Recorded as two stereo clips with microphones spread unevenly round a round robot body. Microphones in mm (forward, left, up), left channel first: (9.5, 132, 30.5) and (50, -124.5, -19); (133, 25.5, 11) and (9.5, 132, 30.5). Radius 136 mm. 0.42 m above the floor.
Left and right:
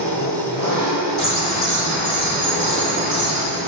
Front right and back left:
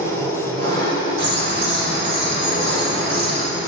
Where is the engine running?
160° left, 2 m.